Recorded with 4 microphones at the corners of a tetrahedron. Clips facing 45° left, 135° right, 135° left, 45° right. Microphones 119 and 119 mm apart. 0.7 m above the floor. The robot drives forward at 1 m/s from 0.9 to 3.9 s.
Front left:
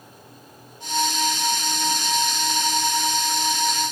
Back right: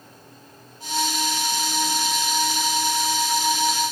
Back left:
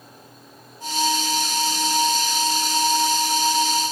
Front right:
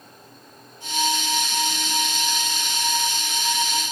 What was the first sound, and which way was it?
Only background noise.